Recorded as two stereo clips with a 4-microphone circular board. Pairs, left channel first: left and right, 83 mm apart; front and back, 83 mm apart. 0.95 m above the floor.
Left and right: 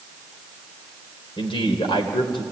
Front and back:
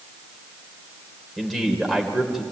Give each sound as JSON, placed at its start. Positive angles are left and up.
{"t": 1.4, "sound": "a man speaking", "azimuth_deg": 90, "distance_m": 3.0}